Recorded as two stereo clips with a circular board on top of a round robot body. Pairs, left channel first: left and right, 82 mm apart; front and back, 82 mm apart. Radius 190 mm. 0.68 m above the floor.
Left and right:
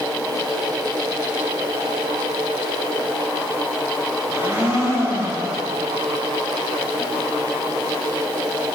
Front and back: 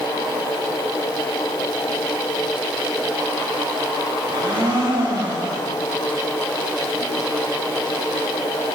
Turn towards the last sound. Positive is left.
turn(degrees=-150)